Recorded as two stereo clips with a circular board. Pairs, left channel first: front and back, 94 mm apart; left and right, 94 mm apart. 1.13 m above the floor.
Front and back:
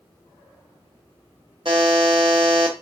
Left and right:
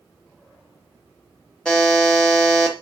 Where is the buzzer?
165° left, 0.7 m.